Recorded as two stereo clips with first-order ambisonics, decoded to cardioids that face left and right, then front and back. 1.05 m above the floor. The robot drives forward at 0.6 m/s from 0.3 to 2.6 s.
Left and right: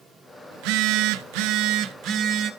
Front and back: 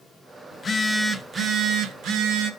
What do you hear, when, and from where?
0.5 s a phone buzzing: 65° right, 0.7 m; by 2.5 s 145° right, 1.1 m